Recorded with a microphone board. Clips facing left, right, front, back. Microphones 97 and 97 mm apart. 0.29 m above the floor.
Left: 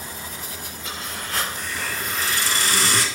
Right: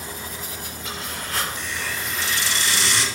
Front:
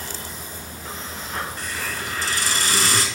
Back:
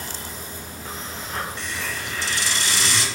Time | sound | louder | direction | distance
1.6 | a hiss | left 1 dB, front 1 dB | 45° left | 0.9 m